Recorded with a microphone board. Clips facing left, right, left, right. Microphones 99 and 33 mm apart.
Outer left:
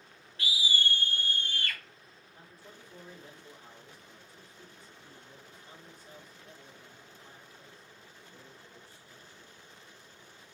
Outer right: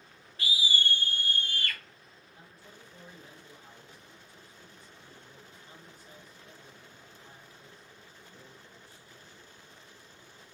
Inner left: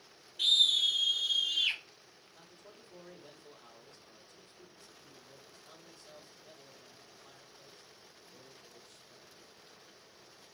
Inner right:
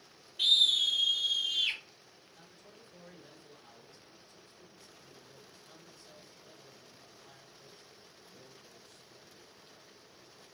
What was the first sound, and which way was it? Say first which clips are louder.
A scream: outer right 1 dB, inner right 1 dB; centre (ahead or behind).